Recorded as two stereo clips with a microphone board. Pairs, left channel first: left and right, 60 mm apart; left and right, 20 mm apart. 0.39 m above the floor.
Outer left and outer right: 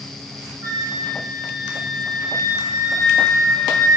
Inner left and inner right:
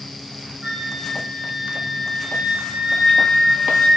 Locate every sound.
0.6 s a flute: 70° right (ahead or behind), 6.5 m